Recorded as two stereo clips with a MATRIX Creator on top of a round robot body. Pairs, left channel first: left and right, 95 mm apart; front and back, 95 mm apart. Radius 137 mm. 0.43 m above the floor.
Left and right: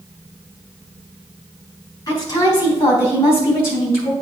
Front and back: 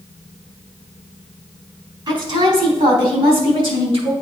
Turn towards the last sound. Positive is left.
turn(degrees=160)